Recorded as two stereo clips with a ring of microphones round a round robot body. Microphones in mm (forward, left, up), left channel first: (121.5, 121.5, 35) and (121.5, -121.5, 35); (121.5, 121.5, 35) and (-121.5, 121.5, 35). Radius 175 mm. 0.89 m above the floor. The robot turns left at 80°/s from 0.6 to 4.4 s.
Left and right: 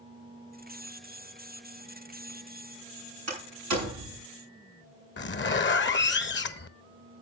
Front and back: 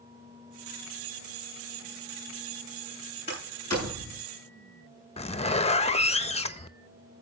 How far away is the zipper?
About 1.2 m.